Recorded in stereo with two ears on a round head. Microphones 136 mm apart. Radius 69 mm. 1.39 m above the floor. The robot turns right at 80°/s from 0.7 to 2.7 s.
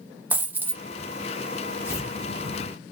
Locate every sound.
0.3 s a dropped coin: 10° right (ahead or behind), 0.7 m; by 0.8 s 15° right (ahead or behind), 0.7 m
1.8 s tearing paper: 15° left (ahead or behind), 0.9 m; by 2.1 s 25° left (ahead or behind), 0.9 m